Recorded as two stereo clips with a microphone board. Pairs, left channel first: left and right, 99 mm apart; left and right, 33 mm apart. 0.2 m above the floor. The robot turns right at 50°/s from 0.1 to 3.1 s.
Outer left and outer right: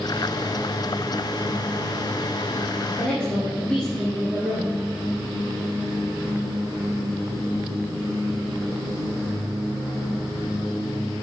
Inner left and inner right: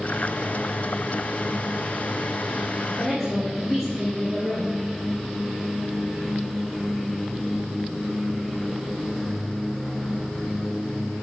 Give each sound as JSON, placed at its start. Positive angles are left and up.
{"t": 2.9, "sound": "a woman speaking", "side_deg": 0, "distance_m": 3.0}